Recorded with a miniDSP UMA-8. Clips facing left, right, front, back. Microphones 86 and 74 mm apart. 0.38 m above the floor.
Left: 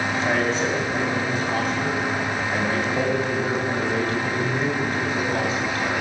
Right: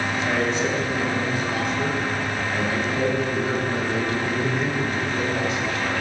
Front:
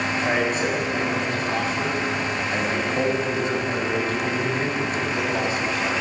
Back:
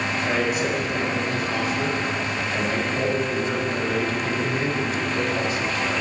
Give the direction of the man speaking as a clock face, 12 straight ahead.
10 o'clock.